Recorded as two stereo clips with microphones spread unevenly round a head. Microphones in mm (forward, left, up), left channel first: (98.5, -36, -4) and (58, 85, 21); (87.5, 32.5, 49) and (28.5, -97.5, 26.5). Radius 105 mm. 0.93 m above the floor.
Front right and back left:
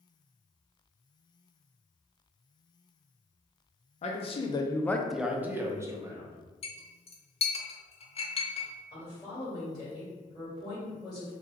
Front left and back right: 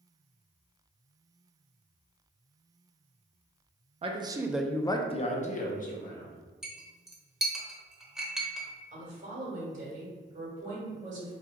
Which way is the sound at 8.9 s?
130° right.